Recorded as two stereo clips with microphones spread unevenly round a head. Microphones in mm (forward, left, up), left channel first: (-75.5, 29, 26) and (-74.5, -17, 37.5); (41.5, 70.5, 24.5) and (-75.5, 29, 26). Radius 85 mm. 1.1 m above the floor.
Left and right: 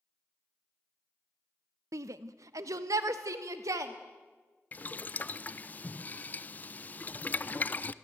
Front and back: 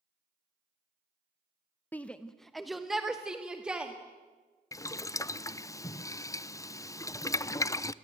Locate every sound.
1.9 s a shout: 60° right, 0.6 m; by 3.9 s 75° right, 2 m
4.7 s boiling: 75° left, 0.6 m